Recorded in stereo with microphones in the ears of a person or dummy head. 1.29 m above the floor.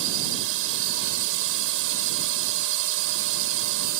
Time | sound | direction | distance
0.0 | a drone | 65° right (ahead or behind) | ?